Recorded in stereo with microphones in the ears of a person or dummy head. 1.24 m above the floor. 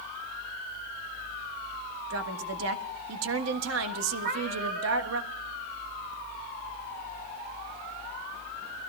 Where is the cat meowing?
75° right (ahead or behind), 3.5 m.